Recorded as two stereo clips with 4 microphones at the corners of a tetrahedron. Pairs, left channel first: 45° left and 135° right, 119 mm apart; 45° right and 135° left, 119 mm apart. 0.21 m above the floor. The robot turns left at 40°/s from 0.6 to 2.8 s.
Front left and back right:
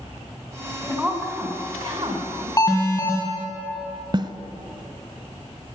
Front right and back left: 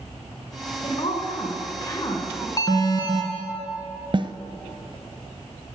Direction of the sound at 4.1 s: 175° left.